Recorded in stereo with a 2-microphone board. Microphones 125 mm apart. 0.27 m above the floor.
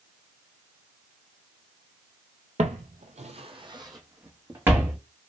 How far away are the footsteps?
About 0.5 m.